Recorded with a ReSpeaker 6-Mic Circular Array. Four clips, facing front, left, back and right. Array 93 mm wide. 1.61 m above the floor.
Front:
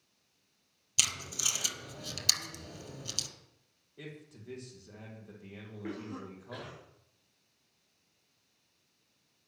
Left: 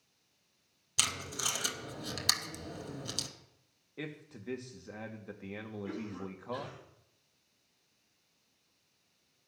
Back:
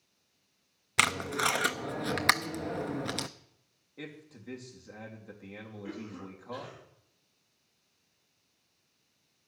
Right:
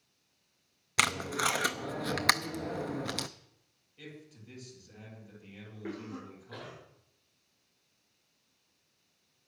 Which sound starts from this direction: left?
A man speaking, at 4.0 s.